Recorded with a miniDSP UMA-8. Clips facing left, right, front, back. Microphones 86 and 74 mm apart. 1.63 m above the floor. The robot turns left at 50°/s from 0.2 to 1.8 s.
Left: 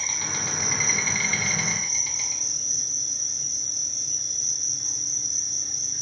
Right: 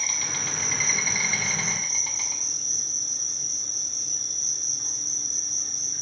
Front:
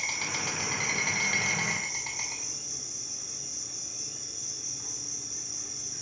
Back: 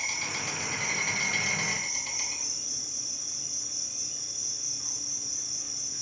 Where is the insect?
35° left, 2.5 m; by 6.0 s 45° right, 2.5 m.